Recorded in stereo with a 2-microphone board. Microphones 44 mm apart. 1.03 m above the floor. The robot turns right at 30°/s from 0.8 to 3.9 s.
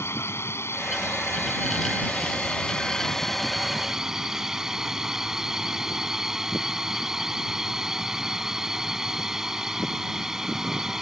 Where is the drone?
100° left; by 11.0 s 165° right.